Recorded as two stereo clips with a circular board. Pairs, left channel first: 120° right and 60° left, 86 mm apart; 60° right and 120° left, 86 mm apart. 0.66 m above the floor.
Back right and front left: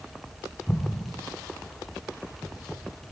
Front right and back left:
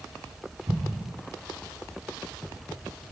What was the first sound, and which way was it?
An explosion, 150° left.